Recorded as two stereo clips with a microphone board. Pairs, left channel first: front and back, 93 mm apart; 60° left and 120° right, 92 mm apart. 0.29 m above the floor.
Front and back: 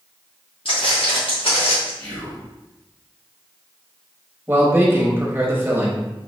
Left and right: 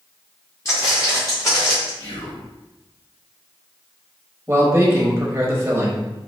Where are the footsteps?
Straight ahead, 1.8 m; by 1.9 s 5° left, 2.5 m.